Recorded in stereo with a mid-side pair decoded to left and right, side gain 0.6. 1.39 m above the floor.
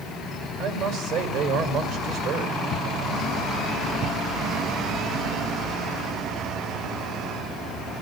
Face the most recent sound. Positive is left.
turn(degrees=-55)